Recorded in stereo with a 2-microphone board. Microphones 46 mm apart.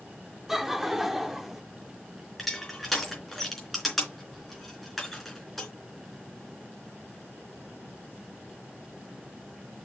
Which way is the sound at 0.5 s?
5° right (ahead or behind).